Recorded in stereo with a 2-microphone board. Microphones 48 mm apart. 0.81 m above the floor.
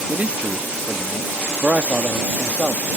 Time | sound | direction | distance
0.1 | a man speaking | 30° right (ahead or behind) | ?